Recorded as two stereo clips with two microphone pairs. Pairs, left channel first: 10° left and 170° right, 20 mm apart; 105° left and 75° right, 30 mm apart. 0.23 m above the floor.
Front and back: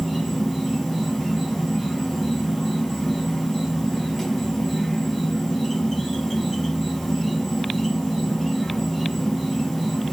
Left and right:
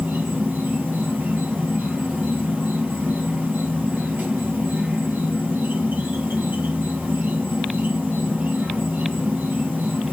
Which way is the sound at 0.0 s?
70° right.